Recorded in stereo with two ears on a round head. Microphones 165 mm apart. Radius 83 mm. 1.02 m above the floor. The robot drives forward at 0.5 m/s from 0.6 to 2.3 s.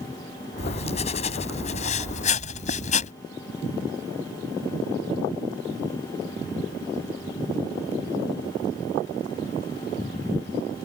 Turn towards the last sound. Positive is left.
turn(degrees=40)  # may be behind; listen again after turning